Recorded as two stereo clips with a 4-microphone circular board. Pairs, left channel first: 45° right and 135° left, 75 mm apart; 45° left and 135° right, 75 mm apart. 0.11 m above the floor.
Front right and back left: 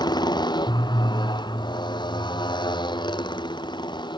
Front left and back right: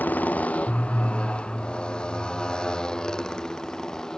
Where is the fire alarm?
I don't hear a fire alarm.